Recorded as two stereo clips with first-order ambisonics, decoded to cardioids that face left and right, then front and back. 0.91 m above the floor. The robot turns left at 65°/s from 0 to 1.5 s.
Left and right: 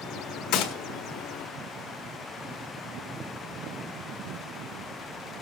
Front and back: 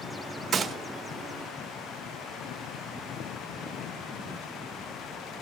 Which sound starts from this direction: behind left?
A gunshot, at 0.5 s.